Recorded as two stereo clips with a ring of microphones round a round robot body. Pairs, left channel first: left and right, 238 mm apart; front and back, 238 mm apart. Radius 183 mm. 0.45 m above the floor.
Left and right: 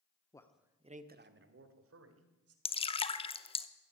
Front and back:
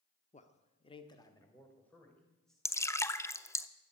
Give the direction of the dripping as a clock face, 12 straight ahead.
10 o'clock.